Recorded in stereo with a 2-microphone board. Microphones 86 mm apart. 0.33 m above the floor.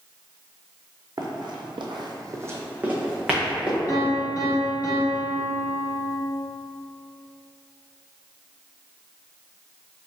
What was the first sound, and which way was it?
Running footsteps, 50° right (ahead or behind).